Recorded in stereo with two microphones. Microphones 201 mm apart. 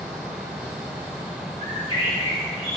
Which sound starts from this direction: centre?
A bird, at 1.6 s.